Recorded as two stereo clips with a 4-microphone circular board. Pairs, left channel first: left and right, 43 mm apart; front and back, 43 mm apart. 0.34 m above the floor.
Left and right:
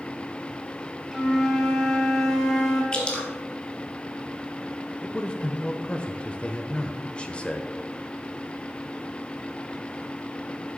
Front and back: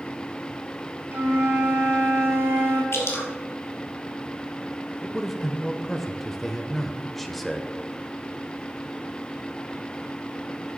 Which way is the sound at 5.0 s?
80° left.